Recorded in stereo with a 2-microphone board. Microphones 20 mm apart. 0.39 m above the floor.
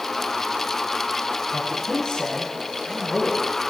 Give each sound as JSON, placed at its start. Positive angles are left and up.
{"t": 1.5, "sound": "a man speaking", "side_deg": 45, "distance_m": 8.0}